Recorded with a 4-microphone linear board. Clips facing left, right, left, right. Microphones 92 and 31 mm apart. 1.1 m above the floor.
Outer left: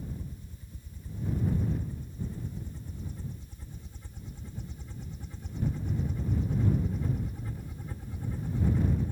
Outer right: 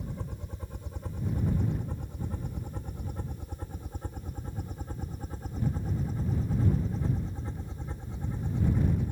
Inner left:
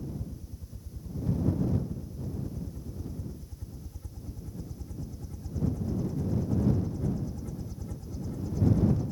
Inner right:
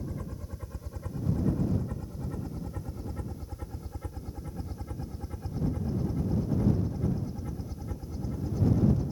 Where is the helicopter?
70° right (ahead or behind); by 9.1 s 15° right (ahead or behind).